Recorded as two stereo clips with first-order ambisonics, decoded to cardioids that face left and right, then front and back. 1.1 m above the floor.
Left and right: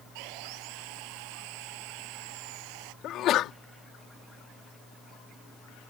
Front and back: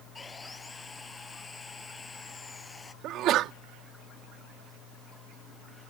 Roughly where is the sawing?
Right.